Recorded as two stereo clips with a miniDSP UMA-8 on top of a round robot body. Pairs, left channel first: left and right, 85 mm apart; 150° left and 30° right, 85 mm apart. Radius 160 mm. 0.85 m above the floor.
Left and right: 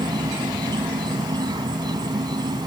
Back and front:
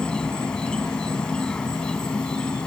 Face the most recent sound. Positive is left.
turn(degrees=-130)